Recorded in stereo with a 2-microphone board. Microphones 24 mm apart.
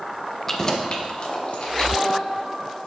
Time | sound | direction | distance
0.5 | keys jangling | 10° left (ahead or behind) | 1.1 m